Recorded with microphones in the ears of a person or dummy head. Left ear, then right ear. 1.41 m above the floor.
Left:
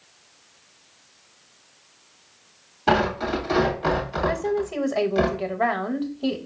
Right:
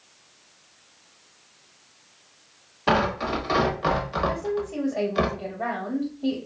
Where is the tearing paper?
10° right (ahead or behind), 1.1 m.